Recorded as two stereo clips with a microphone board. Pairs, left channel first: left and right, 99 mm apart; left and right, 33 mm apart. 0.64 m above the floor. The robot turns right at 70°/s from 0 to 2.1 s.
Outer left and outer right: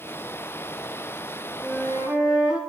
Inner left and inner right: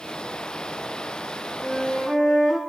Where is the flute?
50° right, 6.5 m; by 2.6 s 15° right, 6.5 m.